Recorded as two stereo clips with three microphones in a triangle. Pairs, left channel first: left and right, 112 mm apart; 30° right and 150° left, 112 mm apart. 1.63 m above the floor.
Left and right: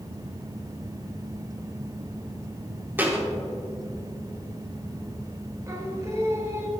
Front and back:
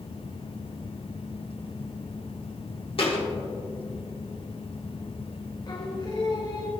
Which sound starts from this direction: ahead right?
Singing, at 5.7 s.